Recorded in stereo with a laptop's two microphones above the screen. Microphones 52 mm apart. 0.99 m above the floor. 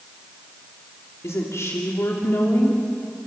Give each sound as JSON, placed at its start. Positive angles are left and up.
{"t": 1.2, "sound": "a woman speaking", "side_deg": 65, "distance_m": 3.0}